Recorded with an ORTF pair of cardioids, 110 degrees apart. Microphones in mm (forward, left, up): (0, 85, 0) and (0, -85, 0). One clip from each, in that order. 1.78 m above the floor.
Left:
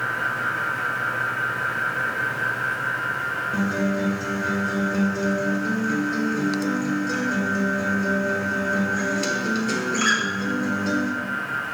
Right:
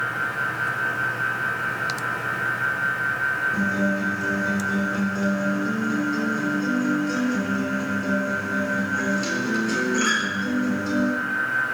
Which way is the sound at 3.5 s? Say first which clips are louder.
Right 1 dB; 25° left.